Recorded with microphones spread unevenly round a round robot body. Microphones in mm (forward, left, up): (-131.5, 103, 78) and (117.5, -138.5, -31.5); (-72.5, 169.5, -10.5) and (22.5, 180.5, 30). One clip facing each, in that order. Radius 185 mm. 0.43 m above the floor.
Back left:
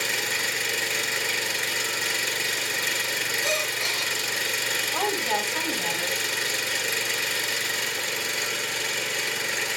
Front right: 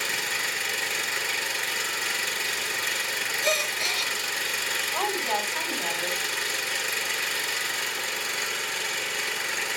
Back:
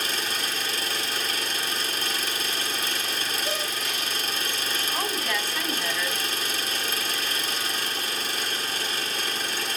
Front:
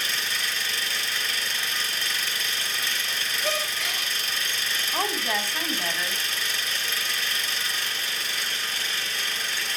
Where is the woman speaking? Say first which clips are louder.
Back left 2 dB, front 3 dB; 80° left, 3.5 m.